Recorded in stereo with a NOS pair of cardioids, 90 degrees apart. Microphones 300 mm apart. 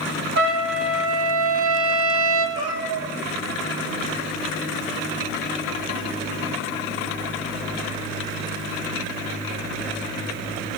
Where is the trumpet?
50° right, 6.5 m.